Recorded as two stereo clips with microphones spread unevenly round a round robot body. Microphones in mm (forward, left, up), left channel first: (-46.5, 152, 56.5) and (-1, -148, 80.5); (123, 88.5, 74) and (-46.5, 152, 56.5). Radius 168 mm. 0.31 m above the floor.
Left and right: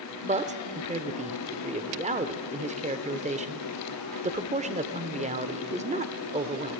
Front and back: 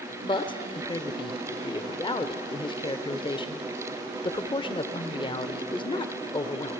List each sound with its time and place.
0.2 s a man speaking: 45° right, 0.9 m